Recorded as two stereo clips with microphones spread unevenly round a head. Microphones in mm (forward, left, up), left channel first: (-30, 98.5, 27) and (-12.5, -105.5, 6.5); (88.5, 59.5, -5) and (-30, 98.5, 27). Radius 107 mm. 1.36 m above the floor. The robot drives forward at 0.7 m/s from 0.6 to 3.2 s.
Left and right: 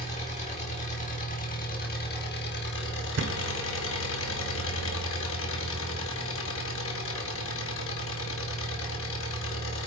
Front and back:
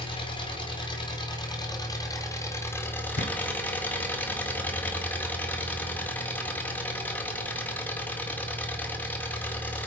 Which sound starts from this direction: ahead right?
A thud, at 3.2 s.